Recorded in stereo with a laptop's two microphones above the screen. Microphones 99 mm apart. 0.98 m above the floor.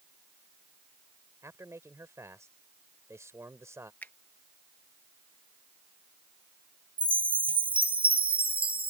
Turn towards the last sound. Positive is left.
turn(degrees=-65)  # may be behind; listen again after turning